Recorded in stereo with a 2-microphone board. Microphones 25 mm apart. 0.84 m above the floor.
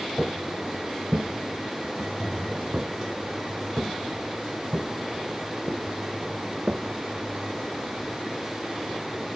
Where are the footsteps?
40° right (ahead or behind); by 7.5 s 35° right (ahead or behind).